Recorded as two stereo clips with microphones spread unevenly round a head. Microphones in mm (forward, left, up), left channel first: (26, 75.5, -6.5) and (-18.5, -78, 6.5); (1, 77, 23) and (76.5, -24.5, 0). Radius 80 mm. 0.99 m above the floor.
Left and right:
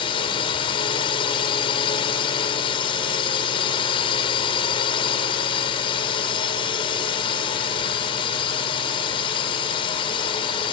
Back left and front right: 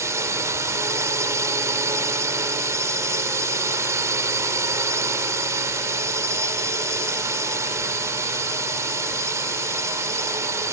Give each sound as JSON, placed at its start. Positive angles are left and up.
{"t": 0.0, "sound": "a drone", "azimuth_deg": 15}